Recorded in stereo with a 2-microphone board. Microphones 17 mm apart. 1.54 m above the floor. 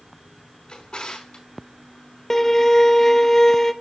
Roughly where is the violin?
Left.